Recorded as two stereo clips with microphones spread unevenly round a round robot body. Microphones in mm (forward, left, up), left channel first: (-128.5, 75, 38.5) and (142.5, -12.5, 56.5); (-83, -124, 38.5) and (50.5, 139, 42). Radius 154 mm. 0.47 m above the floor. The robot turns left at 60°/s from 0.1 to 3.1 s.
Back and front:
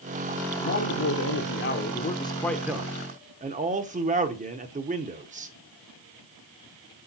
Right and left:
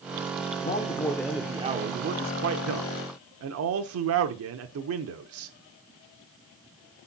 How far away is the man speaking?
About 1.0 m.